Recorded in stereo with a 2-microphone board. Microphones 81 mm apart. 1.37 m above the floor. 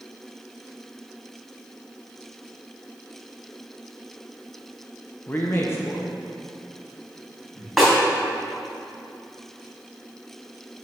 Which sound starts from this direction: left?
A man speaking, at 5.3 s.